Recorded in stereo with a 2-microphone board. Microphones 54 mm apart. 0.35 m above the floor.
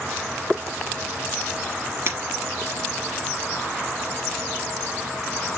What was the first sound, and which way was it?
Breaking glass, 55° right (ahead or behind).